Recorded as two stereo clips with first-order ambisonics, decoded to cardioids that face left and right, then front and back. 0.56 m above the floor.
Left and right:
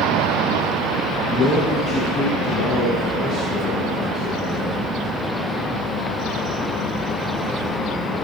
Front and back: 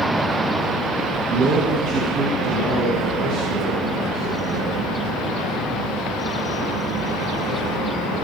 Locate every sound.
1.3 s a man speaking: 135° left, 6.5 m; by 5.0 s 150° left, 12 m